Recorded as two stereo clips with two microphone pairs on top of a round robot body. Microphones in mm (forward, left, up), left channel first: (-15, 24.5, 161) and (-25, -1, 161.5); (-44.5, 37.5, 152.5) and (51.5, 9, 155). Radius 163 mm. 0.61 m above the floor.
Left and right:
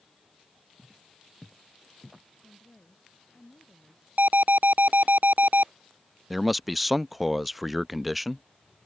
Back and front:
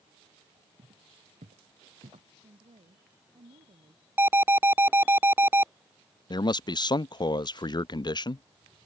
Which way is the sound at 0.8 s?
40° right.